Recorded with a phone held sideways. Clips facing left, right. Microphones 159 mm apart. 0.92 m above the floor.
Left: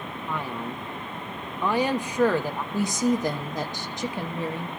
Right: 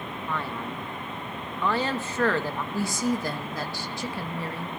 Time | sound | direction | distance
0.3 | a man speaking | 15° left (ahead or behind) | 1.0 m
2.7 | a woman speaking | 20° left (ahead or behind) | 1.0 m